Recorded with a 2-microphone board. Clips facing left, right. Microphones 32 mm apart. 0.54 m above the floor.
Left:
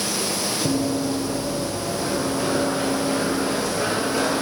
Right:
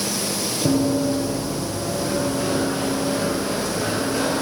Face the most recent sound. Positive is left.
turn(degrees=40)  # may be behind; listen again after turning